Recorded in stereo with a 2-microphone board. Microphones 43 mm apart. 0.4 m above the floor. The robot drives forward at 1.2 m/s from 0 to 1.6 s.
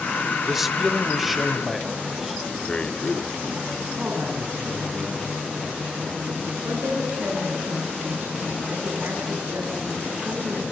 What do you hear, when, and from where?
0.5 s a man speaking: 5° right (ahead or behind), 1.0 m
2.7 s a man speaking: 25° left (ahead or behind), 0.9 m
4.0 s a man speaking: 50° right (ahead or behind), 4.5 m
6.6 s a woman speaking: 70° right (ahead or behind), 6.5 m